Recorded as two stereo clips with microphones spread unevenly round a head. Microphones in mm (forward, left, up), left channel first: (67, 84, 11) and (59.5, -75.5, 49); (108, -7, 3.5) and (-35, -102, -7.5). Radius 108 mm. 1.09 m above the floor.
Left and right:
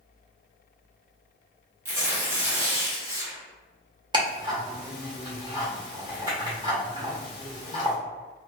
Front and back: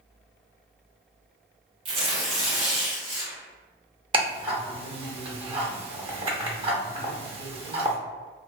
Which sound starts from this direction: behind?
Tearing paper, at 1.9 s.